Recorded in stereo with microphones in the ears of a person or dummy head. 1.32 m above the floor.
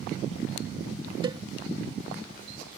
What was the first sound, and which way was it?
A cowbell, 35° right (ahead or behind).